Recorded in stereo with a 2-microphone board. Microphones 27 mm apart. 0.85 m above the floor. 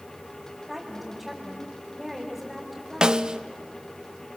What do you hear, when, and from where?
0.7 s a woman speaking: 10° right (ahead or behind), 4 m
3.0 s a snare drum: 30° right (ahead or behind), 0.6 m